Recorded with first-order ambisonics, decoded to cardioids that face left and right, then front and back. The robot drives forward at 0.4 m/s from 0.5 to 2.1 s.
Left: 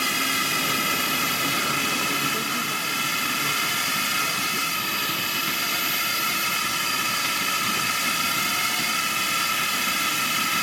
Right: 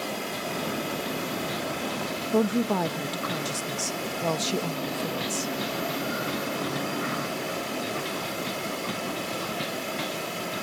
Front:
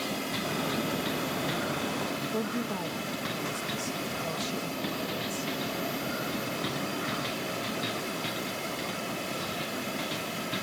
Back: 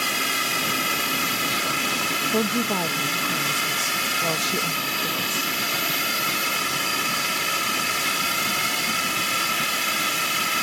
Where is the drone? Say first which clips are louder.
Left 9 dB, back 10 dB; 140° left.